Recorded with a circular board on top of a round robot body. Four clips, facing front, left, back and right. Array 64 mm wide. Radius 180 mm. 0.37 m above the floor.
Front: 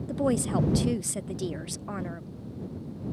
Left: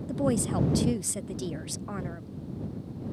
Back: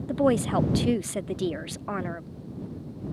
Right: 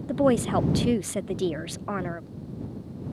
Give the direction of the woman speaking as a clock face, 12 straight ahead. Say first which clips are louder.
Right 6 dB, back 4 dB; 4 o'clock.